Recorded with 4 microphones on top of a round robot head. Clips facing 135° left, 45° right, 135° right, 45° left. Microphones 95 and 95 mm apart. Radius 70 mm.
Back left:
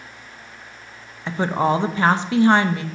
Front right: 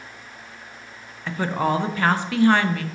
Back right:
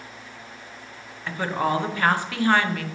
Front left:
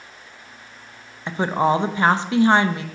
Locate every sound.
1.3 s a woman speaking: 90° left, 0.6 m